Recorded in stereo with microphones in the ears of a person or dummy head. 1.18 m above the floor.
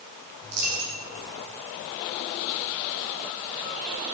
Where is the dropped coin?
50° right (ahead or behind), 3.5 m.